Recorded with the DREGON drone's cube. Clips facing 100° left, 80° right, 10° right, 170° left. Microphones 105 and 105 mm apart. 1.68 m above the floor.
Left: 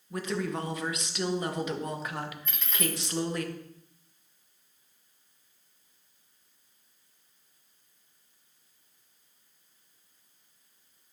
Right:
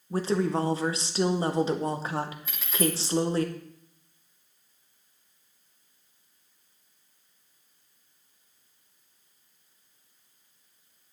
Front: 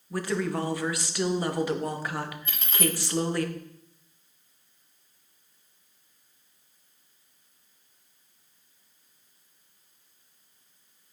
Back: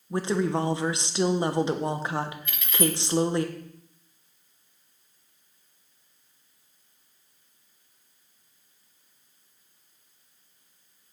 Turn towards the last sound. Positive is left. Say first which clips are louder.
# right 8 dB, back 2 dB
turn(degrees=0)